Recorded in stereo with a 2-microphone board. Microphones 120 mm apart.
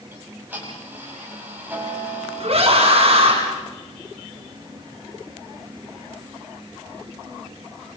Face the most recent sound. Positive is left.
turn(degrees=-55)  # may be behind; listen again after turning